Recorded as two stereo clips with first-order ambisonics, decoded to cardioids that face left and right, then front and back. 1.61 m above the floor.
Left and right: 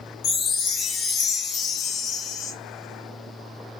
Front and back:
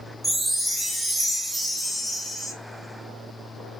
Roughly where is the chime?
Left.